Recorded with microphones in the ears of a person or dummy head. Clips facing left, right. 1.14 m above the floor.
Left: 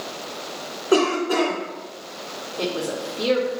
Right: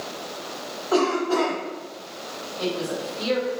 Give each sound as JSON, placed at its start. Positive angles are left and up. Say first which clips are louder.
{"t": 0.9, "sound": "a cough", "louder": "left 2 dB", "side_deg": 30, "distance_m": 1.4}
{"t": 2.6, "sound": "a woman speaking", "louder": "left 1 dB", "side_deg": 60, "distance_m": 1.0}